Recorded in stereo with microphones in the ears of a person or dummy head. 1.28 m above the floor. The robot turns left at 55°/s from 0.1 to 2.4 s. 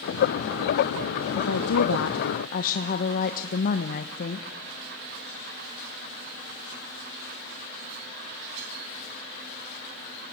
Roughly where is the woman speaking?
Behind left.